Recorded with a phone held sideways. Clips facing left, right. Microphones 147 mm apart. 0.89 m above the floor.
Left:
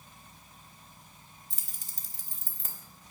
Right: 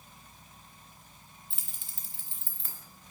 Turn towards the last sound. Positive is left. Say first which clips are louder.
# even
turn(degrees=45)  # may be behind; listen again after turning